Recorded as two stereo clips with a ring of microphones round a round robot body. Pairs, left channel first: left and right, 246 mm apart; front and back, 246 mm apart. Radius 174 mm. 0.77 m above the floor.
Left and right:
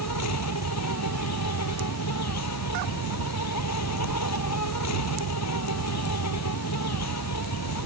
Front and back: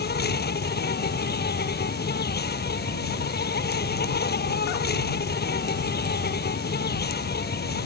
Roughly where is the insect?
Ahead left.